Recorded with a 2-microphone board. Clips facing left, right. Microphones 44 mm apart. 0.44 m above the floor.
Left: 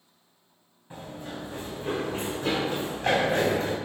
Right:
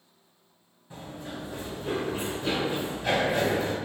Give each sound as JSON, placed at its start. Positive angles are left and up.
{"t": 0.9, "sound": "running footsteps", "side_deg": 25, "distance_m": 1.7}